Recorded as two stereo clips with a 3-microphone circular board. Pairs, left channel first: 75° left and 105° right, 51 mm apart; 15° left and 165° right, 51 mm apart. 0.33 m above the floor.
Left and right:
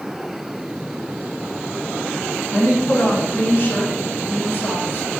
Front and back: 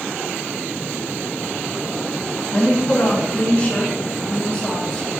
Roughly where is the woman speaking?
Ahead left.